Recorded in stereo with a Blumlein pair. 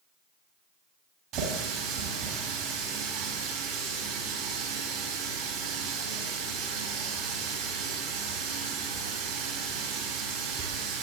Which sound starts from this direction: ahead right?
A running tap, at 1.3 s.